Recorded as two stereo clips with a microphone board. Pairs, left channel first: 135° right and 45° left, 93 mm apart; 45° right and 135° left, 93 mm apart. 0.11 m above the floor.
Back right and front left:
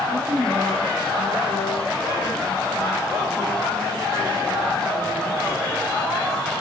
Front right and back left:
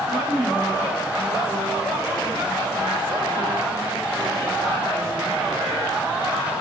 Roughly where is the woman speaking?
Left.